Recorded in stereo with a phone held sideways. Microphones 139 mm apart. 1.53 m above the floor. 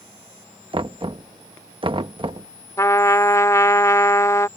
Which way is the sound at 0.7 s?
40° right (ahead or behind).